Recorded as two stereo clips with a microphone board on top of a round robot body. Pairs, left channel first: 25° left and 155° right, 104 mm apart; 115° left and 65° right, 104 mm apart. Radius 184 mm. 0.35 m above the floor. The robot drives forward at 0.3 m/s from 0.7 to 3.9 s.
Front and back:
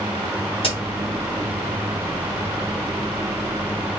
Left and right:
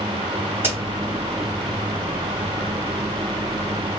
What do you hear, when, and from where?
0.6 s a crack: straight ahead, 1.5 m